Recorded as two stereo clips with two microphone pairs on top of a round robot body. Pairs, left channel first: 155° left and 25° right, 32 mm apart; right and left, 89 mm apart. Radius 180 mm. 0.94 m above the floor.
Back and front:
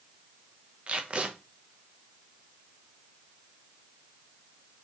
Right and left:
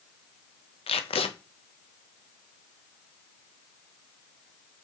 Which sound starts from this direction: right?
Tape being pulled, at 0.9 s.